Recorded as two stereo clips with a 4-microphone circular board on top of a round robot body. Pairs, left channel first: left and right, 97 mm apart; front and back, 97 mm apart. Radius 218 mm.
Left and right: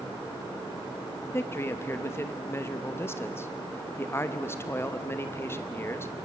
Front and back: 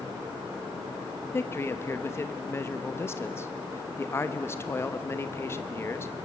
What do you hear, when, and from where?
1.3 s a man speaking: 45° left, 1.3 m